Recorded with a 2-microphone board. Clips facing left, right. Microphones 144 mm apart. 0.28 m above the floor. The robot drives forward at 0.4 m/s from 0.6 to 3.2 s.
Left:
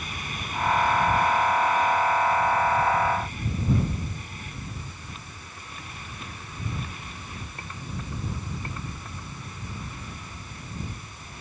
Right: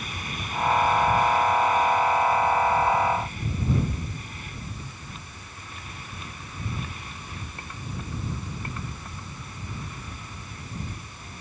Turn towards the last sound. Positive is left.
No sound to turn to.